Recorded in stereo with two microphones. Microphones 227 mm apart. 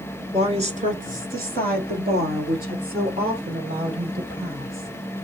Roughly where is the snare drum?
No snare drum in this recording.